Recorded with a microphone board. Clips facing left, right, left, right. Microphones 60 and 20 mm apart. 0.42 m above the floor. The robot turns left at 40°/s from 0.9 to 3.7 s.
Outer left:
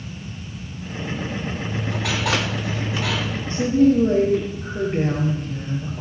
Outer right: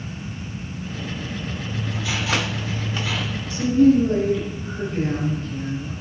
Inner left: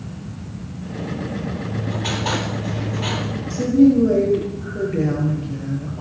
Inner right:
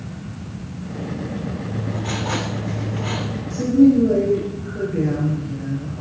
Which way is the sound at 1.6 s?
135° left.